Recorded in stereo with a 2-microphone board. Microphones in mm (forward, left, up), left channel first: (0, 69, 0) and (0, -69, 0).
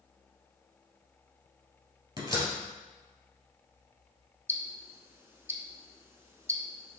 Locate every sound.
2.2 s a door slam: 35° right (ahead or behind), 1.6 m
4.5 s ticking: 20° right (ahead or behind), 0.6 m